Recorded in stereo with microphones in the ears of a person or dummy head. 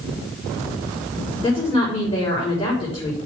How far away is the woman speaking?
About 5.5 m.